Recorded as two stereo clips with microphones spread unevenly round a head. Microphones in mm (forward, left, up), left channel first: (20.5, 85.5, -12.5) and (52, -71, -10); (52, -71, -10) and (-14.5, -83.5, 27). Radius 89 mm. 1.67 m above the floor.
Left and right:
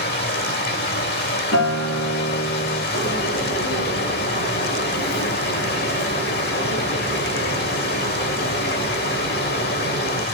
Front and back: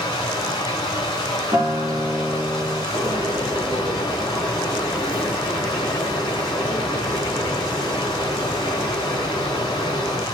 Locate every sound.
0.0 s running water: 85° left, 3.5 m
1.5 s a guitar: 120° left, 3.5 m
2.9 s a bird: 90° left, 8.5 m